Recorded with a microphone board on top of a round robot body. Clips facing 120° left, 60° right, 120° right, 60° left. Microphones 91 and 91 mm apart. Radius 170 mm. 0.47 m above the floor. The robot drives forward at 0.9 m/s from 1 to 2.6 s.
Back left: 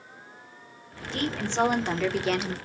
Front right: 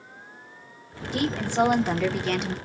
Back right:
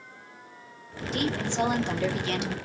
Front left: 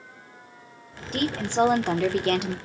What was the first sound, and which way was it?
A woman speaking, 15° left.